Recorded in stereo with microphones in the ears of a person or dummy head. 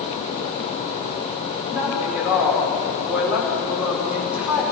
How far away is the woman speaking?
About 5 m.